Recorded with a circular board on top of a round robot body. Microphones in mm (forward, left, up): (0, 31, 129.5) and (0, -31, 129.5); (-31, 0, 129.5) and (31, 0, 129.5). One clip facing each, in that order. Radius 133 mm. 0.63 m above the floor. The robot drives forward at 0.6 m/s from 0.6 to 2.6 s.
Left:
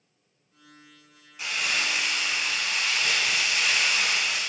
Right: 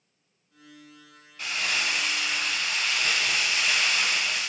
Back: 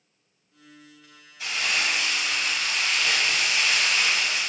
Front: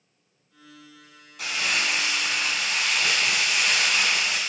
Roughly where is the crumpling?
Ahead.